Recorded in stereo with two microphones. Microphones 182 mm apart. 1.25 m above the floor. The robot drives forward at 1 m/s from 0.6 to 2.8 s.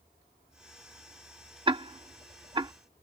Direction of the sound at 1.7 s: 25° right (ahead or behind).